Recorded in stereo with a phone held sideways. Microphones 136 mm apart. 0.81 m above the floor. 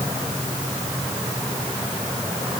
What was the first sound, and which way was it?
Only background noise.